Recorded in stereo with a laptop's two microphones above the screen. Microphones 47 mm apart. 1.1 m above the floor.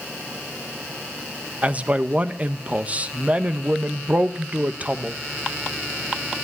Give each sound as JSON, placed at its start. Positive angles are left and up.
{"t": 1.6, "sound": "a man speaking", "side_deg": -30, "distance_m": 1.0}